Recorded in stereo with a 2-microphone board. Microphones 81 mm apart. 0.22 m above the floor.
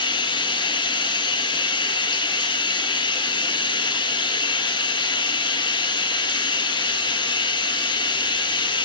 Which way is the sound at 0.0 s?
75° left (ahead or behind).